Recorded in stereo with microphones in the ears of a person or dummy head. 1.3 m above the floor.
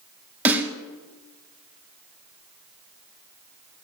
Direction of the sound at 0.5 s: 10° right (ahead or behind).